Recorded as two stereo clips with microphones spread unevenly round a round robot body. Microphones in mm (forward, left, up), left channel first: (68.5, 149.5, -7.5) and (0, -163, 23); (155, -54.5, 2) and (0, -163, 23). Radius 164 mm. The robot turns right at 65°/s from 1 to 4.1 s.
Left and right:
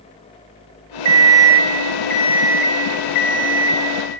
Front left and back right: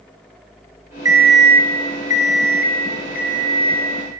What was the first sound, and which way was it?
An alarm clock, 70° right.